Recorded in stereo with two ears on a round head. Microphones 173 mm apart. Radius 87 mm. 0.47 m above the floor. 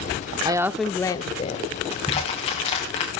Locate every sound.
0.5 s a woman speaking: 20° right (ahead or behind), 1.1 m; by 1.7 s 40° left (ahead or behind), 1.8 m
1.9 s crushing: 30° left (ahead or behind), 9.5 m